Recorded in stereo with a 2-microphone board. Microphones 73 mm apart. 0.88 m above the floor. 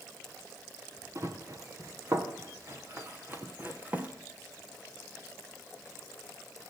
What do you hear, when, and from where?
1.1 s running footsteps: 50° right (ahead or behind), 3.5 m; by 4.1 s 20° right (ahead or behind), 2.5 m